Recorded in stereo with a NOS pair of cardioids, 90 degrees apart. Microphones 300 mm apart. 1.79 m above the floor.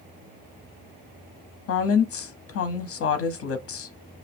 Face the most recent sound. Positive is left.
turn(degrees=50)